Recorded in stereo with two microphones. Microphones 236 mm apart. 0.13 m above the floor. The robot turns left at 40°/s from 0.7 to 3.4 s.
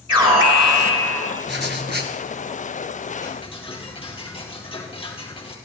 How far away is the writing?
About 1.8 m.